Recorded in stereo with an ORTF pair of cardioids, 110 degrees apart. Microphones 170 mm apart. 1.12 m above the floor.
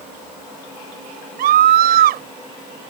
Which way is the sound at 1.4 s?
65° right.